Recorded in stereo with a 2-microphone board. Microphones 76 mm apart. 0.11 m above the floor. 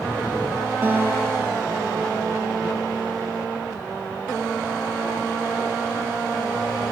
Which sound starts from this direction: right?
A guitar, at 0.8 s.